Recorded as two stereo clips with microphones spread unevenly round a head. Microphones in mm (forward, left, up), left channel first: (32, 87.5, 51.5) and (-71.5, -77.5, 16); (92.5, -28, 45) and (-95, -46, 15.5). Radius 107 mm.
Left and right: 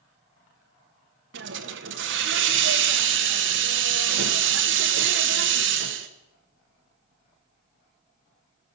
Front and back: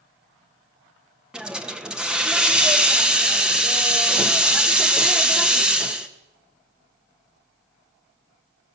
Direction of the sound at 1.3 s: 90° right.